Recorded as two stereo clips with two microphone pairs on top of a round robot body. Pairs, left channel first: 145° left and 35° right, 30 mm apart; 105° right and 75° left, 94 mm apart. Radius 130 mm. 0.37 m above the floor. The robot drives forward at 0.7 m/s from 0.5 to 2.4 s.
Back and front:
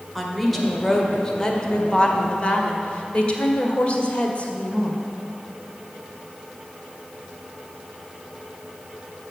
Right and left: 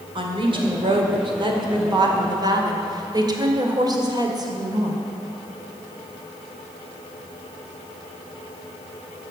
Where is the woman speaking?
70° left, 2 m; by 5.0 s 115° left, 2 m.